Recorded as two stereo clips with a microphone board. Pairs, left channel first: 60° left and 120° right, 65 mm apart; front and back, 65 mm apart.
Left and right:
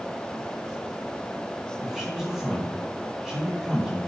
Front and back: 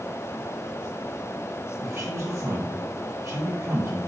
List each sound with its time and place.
1.8 s a man speaking: 160° left, 2.5 m